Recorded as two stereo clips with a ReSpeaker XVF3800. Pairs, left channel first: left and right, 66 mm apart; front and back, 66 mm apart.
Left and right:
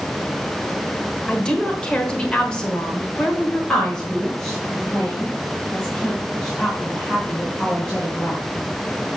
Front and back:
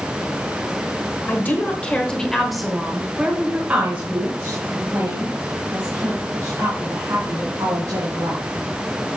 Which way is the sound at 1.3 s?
25° left.